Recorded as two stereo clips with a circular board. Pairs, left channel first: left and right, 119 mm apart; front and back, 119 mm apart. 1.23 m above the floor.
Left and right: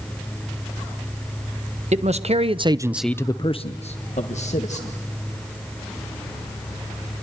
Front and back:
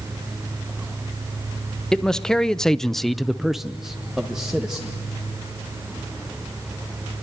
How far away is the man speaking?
About 1.4 m.